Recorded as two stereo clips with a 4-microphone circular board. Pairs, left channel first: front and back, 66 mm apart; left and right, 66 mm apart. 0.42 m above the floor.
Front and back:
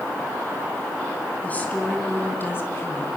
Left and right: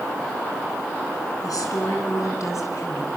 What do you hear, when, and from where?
1.4 s a woman speaking: 65° left, 4.5 m; by 3.1 s 50° left, 3.5 m